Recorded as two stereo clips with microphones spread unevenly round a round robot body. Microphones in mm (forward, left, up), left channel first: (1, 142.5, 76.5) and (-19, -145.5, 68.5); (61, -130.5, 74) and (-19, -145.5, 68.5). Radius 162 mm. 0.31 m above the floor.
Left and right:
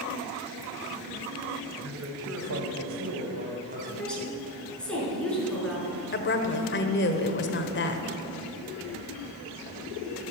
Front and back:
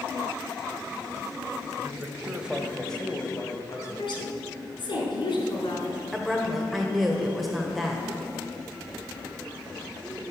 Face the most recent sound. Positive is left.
turn(degrees=105)